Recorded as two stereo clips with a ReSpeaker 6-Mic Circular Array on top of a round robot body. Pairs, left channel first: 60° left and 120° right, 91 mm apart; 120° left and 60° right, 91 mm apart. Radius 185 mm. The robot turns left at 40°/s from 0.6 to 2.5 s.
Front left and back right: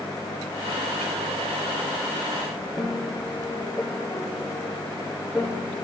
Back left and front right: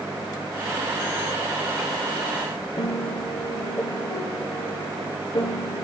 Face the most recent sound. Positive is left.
turn(degrees=155)